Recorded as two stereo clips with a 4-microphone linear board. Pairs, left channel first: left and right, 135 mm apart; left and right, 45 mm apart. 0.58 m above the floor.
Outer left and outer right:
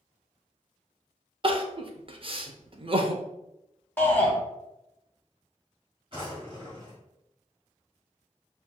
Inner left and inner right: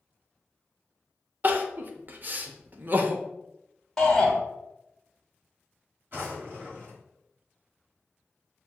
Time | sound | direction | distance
1.4 | crying | 45° right (ahead or behind) | 0.5 m
4.0 | a shout | 15° left (ahead or behind) | 1.3 m
6.1 | a drawer | 45° right (ahead or behind) | 1.8 m